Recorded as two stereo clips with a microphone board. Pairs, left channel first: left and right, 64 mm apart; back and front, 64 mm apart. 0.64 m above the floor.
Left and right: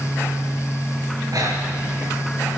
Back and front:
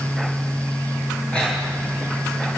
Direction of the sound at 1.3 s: 105° right.